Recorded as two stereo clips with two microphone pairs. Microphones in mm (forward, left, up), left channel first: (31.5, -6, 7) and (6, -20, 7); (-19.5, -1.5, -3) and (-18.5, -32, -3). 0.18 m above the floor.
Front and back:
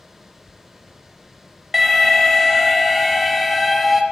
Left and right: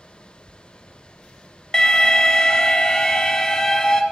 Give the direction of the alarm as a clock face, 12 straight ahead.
8 o'clock.